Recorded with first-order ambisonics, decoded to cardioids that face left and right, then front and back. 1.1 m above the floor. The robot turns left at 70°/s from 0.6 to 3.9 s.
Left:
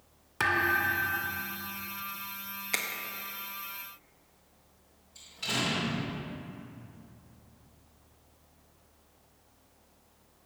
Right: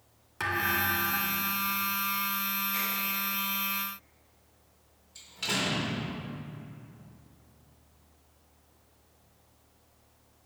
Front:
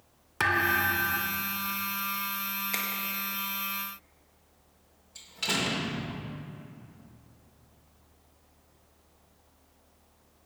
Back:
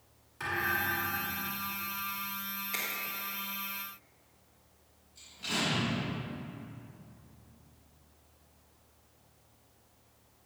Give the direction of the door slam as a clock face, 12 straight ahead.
1 o'clock.